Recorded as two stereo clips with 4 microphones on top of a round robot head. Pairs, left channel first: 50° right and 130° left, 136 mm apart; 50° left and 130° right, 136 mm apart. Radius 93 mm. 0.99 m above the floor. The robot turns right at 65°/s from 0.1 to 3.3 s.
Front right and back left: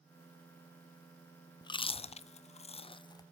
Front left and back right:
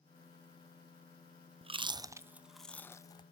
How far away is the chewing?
About 0.6 m.